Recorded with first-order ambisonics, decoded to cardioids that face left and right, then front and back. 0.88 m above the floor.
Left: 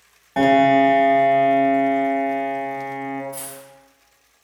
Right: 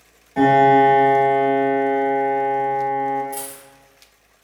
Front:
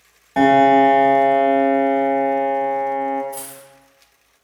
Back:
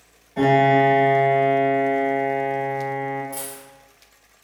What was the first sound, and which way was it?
A piano, 30° left.